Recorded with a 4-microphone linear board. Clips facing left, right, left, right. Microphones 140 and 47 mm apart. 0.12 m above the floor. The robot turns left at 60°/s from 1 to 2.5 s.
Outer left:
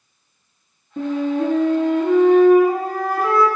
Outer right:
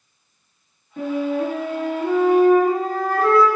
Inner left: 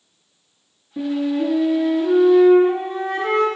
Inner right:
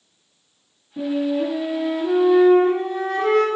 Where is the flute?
110° left, 1.1 m; by 3.5 s 20° left, 1.1 m.